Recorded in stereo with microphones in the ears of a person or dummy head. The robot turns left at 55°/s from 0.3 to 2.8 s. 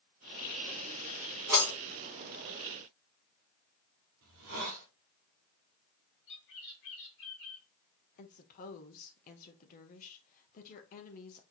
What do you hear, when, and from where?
1.5 s breaking glass: 15° right (ahead or behind), 1.5 m; by 1.7 s 5° right (ahead or behind), 1.5 m
4.2 s a hiss: 65° right (ahead or behind), 1.0 m
6.3 s a bird: 65° left (ahead or behind), 1.7 m
8.2 s a woman speaking: 45° left (ahead or behind), 0.9 m